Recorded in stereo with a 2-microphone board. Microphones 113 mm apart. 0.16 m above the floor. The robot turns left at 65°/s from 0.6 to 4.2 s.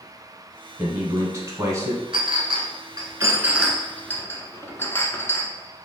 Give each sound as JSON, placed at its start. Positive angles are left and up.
{"t": 0.8, "sound": "a man speaking", "side_deg": -20, "distance_m": 1.2}
{"t": 2.1, "sound": "a clink", "side_deg": -50, "distance_m": 0.9}